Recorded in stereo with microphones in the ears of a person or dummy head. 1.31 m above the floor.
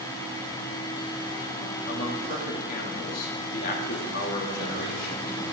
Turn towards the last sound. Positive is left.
turn(degrees=50)  # may be behind; listen again after turning